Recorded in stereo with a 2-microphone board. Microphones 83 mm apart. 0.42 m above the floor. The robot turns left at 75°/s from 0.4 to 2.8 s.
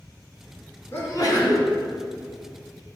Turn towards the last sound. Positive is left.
turn(degrees=5)